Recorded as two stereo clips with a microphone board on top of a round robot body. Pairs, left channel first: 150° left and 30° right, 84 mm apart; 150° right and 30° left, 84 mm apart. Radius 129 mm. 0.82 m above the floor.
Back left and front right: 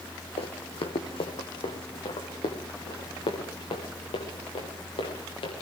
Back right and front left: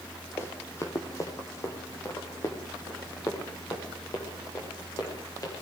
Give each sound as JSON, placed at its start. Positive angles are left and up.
{"t": 0.4, "sound": "running footsteps", "azimuth_deg": 150, "distance_m": 2.5}